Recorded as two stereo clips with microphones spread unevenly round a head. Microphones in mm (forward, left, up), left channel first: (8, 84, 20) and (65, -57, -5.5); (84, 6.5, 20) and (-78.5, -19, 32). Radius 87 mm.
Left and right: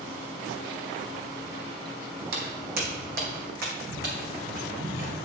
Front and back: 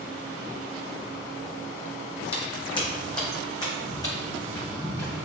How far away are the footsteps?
About 2.5 m.